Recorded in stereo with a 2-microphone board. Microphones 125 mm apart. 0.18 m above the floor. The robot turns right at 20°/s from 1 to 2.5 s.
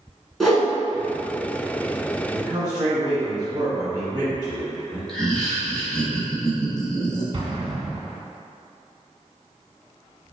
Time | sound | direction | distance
0.4 | a whoosh | centre (ahead or behind) | 1.3 m
2.3 | a man speaking | 35° right (ahead or behind) | 1.9 m
5.1 | laughter | 5° left (ahead or behind) | 1.0 m
7.3 | an explosion | 45° right (ahead or behind) | 0.6 m